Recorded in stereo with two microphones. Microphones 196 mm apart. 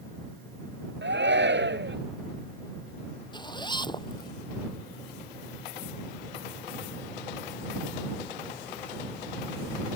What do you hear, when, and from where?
1.0 s a shout: 70° right (ahead or behind)
3.3 s a zipper: 25° left (ahead or behind)